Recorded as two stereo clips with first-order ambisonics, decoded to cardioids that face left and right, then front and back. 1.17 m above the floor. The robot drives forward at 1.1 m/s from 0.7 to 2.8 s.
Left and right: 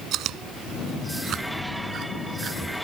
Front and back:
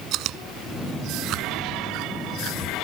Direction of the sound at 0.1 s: 140° right.